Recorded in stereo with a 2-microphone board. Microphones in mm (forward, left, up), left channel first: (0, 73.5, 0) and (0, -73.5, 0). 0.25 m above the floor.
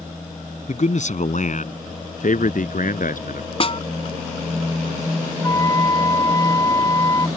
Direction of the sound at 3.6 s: 40° left (ahead or behind).